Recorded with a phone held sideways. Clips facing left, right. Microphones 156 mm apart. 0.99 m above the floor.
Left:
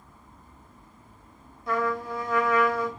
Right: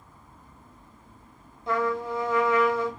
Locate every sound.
1.7 s a trumpet: 25° right (ahead or behind), 0.9 m